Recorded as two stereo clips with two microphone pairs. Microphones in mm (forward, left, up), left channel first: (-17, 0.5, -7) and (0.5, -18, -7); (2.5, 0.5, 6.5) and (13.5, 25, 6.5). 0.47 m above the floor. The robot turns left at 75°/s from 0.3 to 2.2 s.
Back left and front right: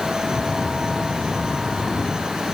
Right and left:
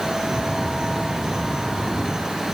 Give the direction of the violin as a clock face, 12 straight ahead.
I don't hear a violin.